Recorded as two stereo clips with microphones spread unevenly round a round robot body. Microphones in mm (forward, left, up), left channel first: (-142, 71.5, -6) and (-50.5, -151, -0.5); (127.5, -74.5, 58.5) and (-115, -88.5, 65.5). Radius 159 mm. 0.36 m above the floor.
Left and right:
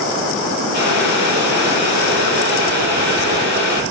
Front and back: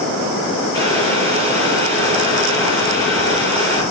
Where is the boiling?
85° left, 9.5 m.